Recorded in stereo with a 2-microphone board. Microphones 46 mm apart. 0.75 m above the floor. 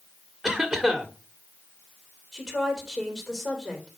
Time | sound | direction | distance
0.4 | a cough | 10° right (ahead or behind) | 1.9 m
2.3 | a woman speaking | 5° right (ahead or behind) | 3.5 m